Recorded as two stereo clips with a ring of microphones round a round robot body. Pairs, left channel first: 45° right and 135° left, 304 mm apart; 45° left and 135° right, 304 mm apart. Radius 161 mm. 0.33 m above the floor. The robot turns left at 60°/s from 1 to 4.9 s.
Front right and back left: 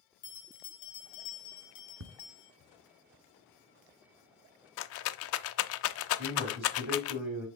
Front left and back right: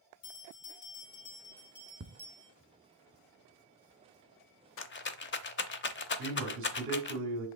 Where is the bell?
5° right, 2.5 m; by 2.5 s 95° right, 2.5 m.